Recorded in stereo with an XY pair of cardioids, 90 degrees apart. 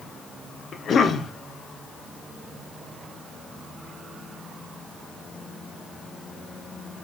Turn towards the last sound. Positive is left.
turn(degrees=60)